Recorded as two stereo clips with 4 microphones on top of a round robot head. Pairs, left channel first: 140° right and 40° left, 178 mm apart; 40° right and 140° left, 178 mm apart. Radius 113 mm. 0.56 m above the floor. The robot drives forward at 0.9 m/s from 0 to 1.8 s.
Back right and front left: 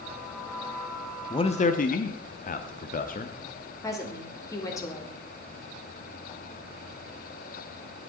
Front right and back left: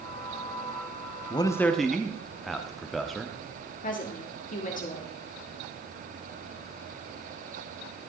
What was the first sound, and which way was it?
A man speaking, 85° right.